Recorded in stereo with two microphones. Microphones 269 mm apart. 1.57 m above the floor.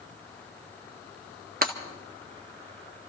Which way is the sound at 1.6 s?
35° right (ahead or behind).